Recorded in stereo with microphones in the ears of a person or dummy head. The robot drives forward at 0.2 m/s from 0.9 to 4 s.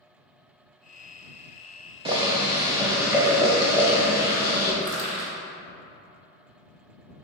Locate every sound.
2.0 s boiling: 25° right (ahead or behind), 0.5 m; by 4.7 s 15° right (ahead or behind), 0.9 m
4.8 s crushing: 65° right (ahead or behind), 1.2 m